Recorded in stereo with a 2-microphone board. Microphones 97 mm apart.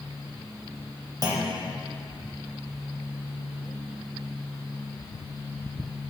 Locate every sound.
1.2 s a clunk: 45° right (ahead or behind), 1.5 m